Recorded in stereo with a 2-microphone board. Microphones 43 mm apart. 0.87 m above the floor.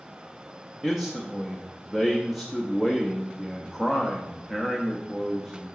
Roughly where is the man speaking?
Centre.